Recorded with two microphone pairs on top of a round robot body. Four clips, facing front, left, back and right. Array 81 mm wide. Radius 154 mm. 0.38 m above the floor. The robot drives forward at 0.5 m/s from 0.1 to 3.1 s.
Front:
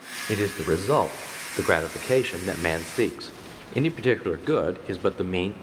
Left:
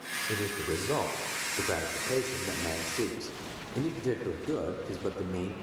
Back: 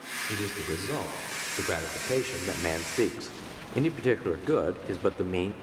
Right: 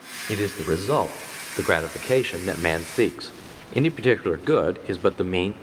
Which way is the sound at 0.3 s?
35° right.